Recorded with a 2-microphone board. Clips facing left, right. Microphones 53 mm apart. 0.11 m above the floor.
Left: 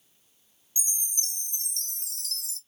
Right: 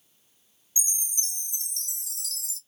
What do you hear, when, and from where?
0.8 s a chime: 40° left (ahead or behind), 1.1 m